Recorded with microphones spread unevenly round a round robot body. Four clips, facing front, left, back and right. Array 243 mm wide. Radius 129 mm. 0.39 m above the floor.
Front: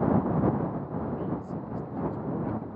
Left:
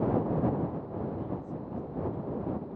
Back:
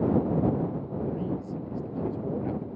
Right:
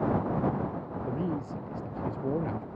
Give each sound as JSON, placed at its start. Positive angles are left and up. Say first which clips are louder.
{"t": 1.1, "sound": "a man speaking", "louder": "right 4 dB, back 1 dB", "azimuth_deg": -90}